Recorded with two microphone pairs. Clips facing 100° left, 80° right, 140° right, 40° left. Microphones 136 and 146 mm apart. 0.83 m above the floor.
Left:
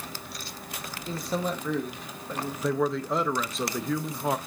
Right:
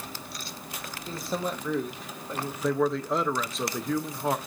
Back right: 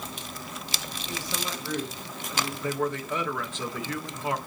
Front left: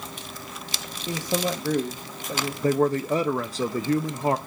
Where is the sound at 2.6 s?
15° left, 0.5 m.